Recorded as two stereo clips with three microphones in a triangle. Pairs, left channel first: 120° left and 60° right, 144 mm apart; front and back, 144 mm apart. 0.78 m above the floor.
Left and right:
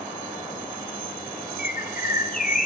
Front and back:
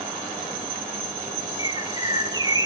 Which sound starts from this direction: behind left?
A bird, at 1.6 s.